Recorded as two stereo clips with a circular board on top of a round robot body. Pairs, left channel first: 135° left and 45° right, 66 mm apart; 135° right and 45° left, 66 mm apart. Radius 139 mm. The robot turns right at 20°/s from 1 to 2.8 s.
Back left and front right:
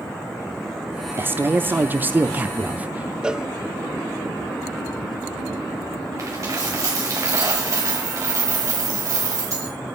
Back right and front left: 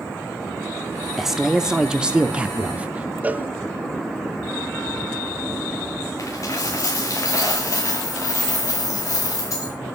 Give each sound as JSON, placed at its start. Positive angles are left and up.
{"t": 1.2, "sound": "a man speaking", "azimuth_deg": -35, "distance_m": 0.8}
{"t": 3.2, "sound": "a cowbell", "azimuth_deg": 20, "distance_m": 0.6}
{"t": 6.2, "sound": "a dropped coin", "azimuth_deg": -90, "distance_m": 3.0}